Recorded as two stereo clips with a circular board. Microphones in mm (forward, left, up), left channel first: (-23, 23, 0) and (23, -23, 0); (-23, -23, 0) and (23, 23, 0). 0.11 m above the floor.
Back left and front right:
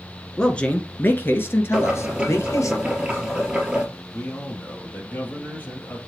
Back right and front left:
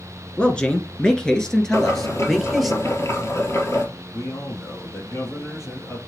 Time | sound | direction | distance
0.4 | a man speaking | 170° right | 1.3 m
1.7 | boiling | 120° right | 2.5 m
4.1 | a man speaking | 170° right | 3 m